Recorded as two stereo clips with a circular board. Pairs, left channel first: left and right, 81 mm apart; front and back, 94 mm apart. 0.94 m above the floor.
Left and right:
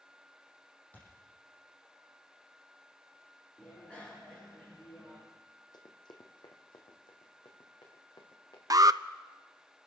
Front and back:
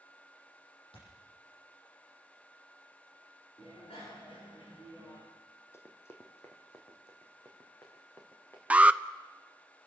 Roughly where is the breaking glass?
No breaking glass in this recording.